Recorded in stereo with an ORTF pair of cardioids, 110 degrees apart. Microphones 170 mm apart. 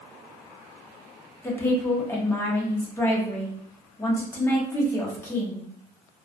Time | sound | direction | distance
1.4 | a woman speaking | 15° left | 0.8 m